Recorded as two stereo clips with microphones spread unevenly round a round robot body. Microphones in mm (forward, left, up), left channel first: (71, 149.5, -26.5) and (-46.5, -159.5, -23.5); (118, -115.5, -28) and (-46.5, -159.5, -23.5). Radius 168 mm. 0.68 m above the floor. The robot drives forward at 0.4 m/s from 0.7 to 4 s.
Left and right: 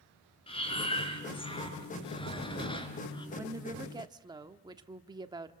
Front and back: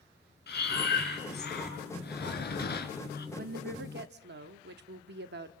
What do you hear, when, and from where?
0.5 s breathing: 5° right, 4 m; by 3.3 s 10° right, 3 m
3.4 s a woman speaking: 170° left, 0.8 m